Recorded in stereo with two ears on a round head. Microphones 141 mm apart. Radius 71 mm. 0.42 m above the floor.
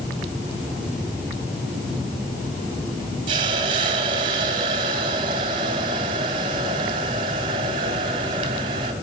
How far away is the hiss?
About 2.5 m.